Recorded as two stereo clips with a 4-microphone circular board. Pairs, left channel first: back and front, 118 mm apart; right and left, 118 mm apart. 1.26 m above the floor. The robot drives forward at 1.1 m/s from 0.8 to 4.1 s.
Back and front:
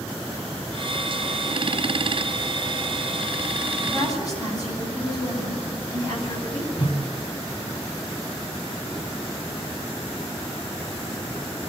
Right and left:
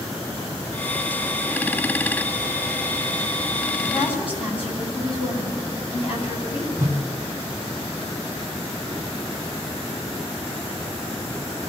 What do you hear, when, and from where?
3.9 s a woman speaking: 125° right, 9 m
6.8 s a whoosh: 155° left, 3 m